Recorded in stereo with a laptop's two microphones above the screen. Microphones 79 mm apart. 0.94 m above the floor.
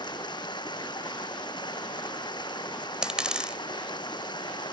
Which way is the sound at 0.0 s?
70° left (ahead or behind).